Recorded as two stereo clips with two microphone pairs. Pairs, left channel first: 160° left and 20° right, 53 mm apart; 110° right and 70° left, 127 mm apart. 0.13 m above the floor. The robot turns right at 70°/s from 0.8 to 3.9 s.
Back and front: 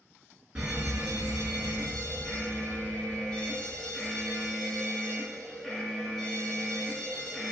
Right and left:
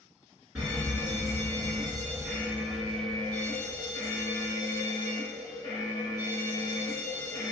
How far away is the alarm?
About 1.6 m.